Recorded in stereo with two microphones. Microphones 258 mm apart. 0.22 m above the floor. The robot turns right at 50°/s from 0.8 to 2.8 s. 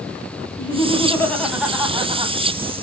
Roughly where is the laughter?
Behind left.